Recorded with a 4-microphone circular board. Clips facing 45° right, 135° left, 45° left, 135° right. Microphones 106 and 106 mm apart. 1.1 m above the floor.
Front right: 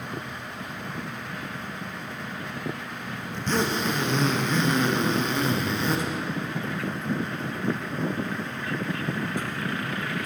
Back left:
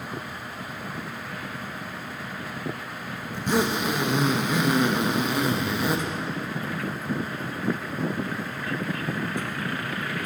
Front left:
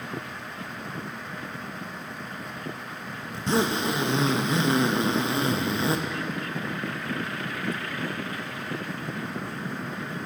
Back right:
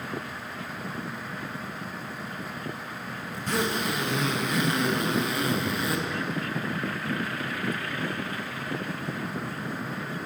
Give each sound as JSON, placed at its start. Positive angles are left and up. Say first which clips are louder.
{"t": 3.3, "sound": "a zipper", "louder": "back left 2 dB, front left 4 dB", "azimuth_deg": 65, "distance_m": 0.6}